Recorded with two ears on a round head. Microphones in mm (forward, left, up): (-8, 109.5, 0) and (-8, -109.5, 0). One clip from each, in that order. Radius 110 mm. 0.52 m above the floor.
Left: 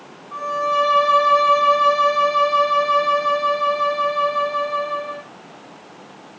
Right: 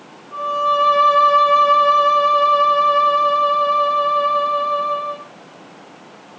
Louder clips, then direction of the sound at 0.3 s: Right 2 dB; 30° left (ahead or behind).